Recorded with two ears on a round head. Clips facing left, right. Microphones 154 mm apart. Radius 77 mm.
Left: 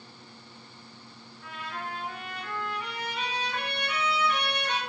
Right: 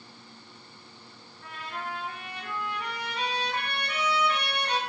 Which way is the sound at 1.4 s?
35° right (ahead or behind).